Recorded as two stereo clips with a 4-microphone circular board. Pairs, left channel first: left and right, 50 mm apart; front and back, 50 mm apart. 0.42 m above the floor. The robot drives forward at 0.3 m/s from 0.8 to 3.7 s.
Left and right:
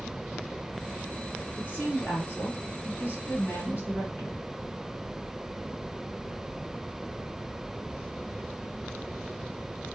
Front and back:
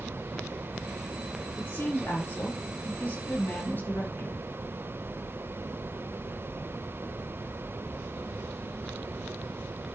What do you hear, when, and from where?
1.6 s a woman speaking: 35° left, 3.5 m; by 4.4 s 45° left, 3 m